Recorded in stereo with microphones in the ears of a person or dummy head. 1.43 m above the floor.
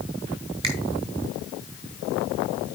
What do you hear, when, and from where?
0.6 s a finger snap: 30° right (ahead or behind), 1.2 m